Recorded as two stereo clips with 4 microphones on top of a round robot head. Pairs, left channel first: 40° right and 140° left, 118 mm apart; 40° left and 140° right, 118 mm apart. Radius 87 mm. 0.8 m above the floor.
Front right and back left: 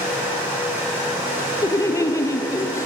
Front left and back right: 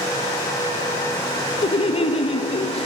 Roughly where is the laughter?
Ahead.